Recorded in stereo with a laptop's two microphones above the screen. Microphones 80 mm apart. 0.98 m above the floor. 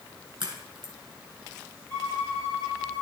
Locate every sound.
0.4 s a crack: 65° right (ahead or behind), 2.5 m
1.9 s a violin: 25° left (ahead or behind), 5 m